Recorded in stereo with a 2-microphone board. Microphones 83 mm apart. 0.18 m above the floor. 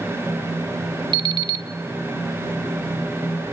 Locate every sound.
1.1 s an alarm clock: 65° right (ahead or behind), 1.1 m